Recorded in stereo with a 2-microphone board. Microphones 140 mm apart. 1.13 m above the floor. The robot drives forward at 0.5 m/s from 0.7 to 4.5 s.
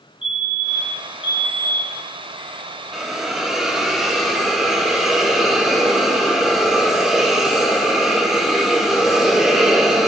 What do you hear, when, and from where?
0.2 s a fire alarm: 40° left (ahead or behind), 4 m; by 2.1 s 45° left (ahead or behind), 3.5 m
2.9 s a hiss: 5° right (ahead or behind), 1.5 m; by 10.1 s centre (ahead or behind), 2.5 m